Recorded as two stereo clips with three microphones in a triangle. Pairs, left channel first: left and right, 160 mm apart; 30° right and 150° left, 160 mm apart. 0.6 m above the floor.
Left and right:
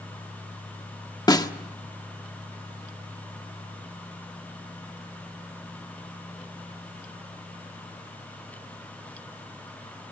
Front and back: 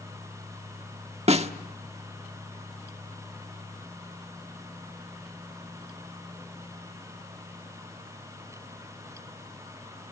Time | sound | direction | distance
1.3 | a snare drum | 140° left | 1.3 m